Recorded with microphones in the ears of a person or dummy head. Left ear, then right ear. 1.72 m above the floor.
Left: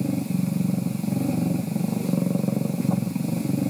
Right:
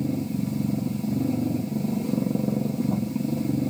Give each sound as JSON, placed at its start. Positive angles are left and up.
{"t": 0.0, "sound": "a machine running", "side_deg": 45, "distance_m": 0.9}